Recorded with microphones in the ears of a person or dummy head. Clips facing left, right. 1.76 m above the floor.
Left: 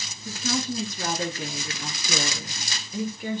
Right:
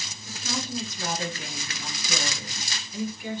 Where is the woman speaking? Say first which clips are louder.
Left 5 dB; 50° left (ahead or behind), 4 m; by 3.4 s 45° left (ahead or behind), 5.5 m.